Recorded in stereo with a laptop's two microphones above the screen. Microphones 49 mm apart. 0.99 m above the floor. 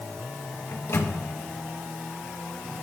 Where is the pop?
No pop in this recording.